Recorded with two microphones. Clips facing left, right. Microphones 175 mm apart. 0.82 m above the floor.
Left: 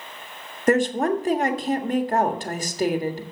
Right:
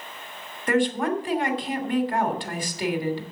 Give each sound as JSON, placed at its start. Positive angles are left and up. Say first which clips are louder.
{"t": 0.7, "sound": "a woman speaking", "louder": "left 3 dB", "side_deg": 40, "distance_m": 1.5}